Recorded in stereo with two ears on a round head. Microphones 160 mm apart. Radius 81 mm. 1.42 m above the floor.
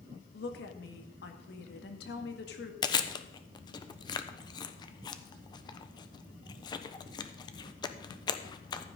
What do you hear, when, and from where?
0.3 s a woman speaking: 60° left (ahead or behind), 1.9 m
2.8 s chewing: 25° left (ahead or behind), 0.9 m